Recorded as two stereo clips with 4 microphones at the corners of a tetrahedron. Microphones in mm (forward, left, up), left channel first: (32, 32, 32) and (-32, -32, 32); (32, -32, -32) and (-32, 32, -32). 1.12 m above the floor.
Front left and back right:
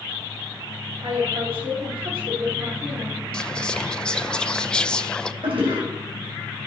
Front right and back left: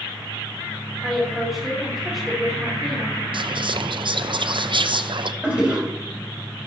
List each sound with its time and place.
1.0 s a woman speaking: 140° right, 3 m
3.3 s whispering: 125° left, 0.7 m
5.4 s a toilet flushing: 150° right, 4 m